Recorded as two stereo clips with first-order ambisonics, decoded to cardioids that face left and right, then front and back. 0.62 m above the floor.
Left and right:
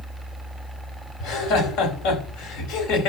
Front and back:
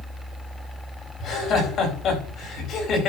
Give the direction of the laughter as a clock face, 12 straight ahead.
10 o'clock.